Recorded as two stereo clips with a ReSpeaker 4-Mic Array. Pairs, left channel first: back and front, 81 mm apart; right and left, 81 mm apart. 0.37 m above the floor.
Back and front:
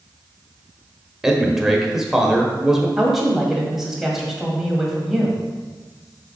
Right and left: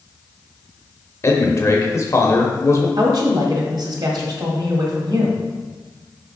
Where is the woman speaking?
85° left, 1.7 m.